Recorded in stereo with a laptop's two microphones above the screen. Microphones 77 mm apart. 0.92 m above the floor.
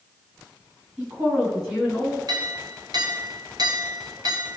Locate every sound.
1.0 s a woman speaking: 5° right (ahead or behind), 7 m
2.3 s a clink: 60° right (ahead or behind), 2.5 m